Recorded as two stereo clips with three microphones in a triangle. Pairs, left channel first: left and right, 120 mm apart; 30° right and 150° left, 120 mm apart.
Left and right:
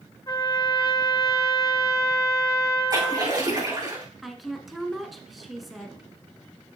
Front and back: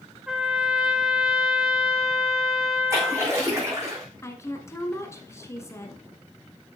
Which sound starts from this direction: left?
A trumpet, at 0.3 s.